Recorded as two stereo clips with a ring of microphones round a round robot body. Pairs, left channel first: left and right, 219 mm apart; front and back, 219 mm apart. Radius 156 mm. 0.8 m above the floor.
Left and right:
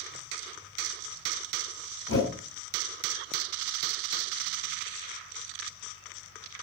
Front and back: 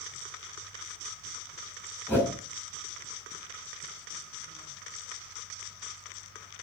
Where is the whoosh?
80° left, 4 m.